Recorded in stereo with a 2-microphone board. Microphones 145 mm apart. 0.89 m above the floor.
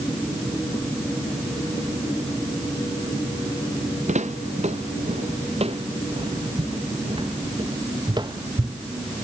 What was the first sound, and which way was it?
Footsteps, 60° right (ahead or behind).